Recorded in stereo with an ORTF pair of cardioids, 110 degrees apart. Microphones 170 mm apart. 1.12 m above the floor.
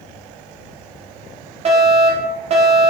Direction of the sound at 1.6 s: 40° right.